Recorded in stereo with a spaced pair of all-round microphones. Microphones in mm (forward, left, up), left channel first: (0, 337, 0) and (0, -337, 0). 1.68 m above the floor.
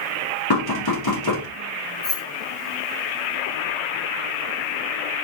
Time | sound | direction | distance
0.5 | knocking | 35° left (ahead or behind) | 1.2 m
2.0 | keys jangling | 35° left (ahead or behind) | 1.8 m